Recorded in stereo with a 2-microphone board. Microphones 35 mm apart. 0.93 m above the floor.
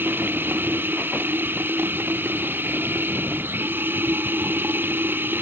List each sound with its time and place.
0.0 s running water: 80° right